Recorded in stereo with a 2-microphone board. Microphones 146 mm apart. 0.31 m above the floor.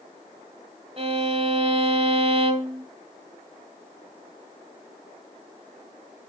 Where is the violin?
45° right (ahead or behind), 1.5 m.